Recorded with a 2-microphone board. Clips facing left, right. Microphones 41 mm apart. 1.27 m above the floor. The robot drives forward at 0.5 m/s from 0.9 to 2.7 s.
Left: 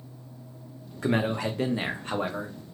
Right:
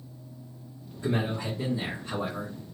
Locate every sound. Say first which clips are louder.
1.0 s a man speaking: left 3 dB; 80° left, 0.8 m; by 2.6 s 45° left (ahead or behind), 1.2 m